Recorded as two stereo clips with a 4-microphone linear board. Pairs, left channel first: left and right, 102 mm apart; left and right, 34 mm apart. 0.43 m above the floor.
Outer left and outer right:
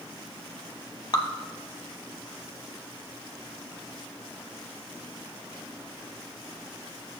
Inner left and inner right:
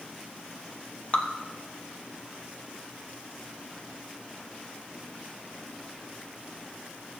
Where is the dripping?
40° left (ahead or behind), 1.1 m.